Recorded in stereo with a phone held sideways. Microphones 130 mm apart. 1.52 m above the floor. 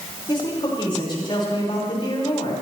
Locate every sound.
0.3 s a man speaking: 40° left (ahead or behind), 5.5 m